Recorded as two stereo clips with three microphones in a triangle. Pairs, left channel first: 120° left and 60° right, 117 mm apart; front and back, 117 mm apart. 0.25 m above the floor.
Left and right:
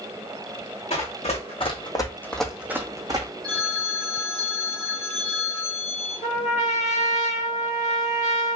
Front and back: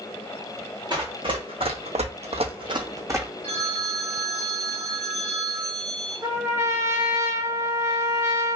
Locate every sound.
0.9 s running footsteps: 135° left, 0.9 m; by 3.3 s 110° right, 0.8 m
3.4 s a phone ringing: 160° right, 1.3 m
6.2 s a trumpet: 120° left, 1.0 m